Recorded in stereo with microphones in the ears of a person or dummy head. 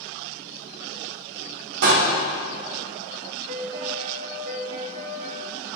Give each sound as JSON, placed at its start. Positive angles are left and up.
{"t": 1.8, "sound": "a door slam", "side_deg": -70, "distance_m": 1.8}
{"t": 3.5, "sound": "a piano", "side_deg": -45, "distance_m": 1.9}